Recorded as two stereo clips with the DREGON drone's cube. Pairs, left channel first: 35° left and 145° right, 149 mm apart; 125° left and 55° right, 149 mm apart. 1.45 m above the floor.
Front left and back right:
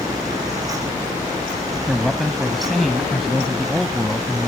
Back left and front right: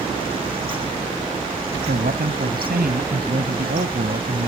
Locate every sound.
1.9 s a man speaking: 55° right